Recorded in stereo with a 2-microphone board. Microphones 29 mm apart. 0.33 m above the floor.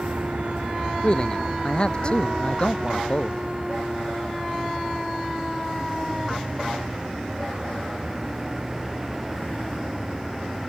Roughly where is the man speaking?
Left.